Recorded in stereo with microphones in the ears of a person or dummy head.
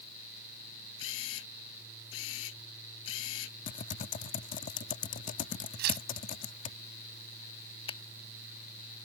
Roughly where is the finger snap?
Left.